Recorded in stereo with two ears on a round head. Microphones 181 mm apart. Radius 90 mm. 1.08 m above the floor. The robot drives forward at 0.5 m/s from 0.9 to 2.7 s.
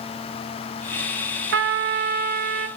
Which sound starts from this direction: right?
A trumpet, at 1.5 s.